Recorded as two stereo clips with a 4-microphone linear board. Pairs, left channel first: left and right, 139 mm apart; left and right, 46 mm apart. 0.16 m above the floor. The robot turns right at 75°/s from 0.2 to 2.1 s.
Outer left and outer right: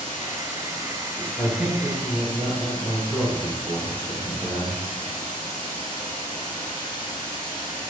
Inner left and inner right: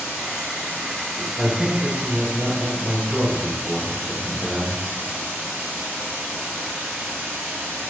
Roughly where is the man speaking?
Centre.